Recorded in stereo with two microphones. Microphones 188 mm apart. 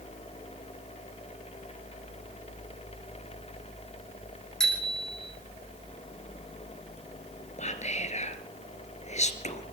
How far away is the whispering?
About 2 m.